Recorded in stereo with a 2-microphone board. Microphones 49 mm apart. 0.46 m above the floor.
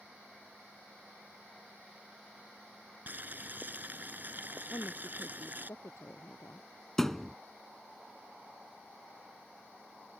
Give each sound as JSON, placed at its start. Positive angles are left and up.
{"t": 3.1, "sound": "boiling", "side_deg": -40}
{"t": 4.7, "sound": "a woman speaking", "side_deg": 80}
{"t": 7.0, "sound": "a thud", "side_deg": 10}